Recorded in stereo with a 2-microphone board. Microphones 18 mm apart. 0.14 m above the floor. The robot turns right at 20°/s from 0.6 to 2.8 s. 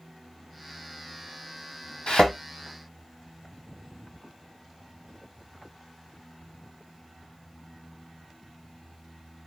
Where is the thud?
70° left (ahead or behind), 1.5 m; by 2.3 s 75° left (ahead or behind), 1.5 m.